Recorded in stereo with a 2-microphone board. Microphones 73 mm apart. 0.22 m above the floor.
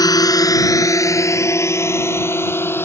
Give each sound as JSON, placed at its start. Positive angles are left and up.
{"t": 0.0, "sound": "a drone", "side_deg": 60}